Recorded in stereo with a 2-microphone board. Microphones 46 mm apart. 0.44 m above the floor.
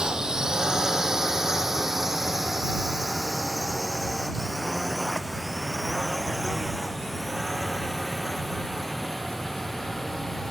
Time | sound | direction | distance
0.0 | a drone | 20° right (ahead or behind) | ?